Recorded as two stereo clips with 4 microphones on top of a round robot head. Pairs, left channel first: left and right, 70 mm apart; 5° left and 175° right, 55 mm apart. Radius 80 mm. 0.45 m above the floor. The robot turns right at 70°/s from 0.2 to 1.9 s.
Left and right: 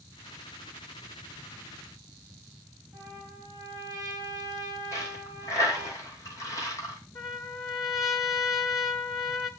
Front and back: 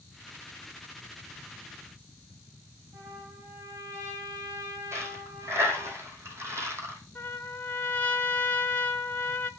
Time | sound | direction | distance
2.9 | a trumpet | 140° right | 5.5 m
4.9 | a dropped coin | 145° left | 2.5 m
7.2 | a trumpet | 70° left | 1.9 m